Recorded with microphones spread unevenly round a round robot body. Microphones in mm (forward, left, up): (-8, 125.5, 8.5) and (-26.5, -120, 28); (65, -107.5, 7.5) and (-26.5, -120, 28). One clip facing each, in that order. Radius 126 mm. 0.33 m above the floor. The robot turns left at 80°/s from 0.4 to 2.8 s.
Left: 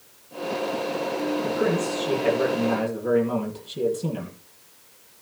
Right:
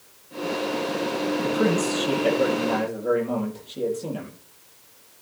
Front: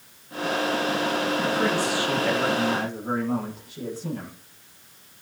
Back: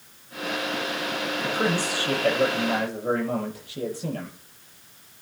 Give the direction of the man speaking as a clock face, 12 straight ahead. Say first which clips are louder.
Right 4 dB, front 2 dB; 3 o'clock.